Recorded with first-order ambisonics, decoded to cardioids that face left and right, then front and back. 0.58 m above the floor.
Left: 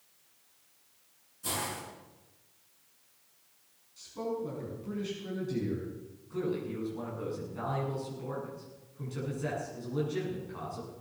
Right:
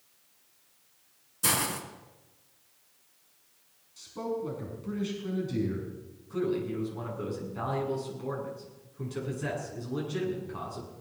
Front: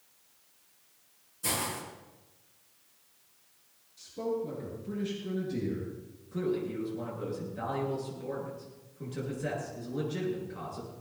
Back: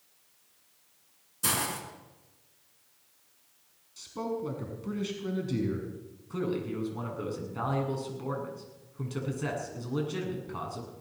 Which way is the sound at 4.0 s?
165° right.